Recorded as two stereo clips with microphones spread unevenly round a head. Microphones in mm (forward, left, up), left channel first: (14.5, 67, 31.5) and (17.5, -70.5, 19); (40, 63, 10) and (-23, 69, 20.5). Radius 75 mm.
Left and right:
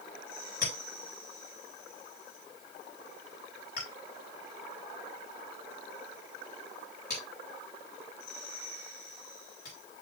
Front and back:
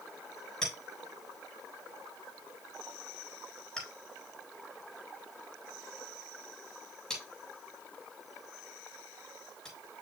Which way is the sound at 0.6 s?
75° left.